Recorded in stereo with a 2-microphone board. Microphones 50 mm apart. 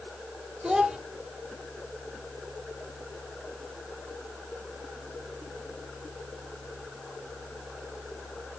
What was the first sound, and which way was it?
A child speaking, 15° right (ahead or behind).